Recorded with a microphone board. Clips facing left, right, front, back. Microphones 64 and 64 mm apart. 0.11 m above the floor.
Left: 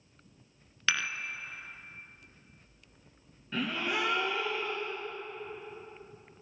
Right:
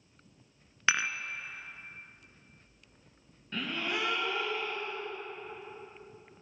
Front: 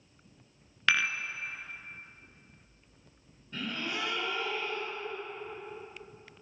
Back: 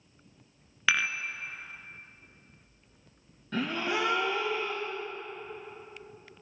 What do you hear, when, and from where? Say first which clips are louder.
0.9 s dishes clattering: right 2 dB, even; 100° right, 0.9 m
3.5 s a gasp: left 2 dB, back 6 dB; 175° left, 3.5 m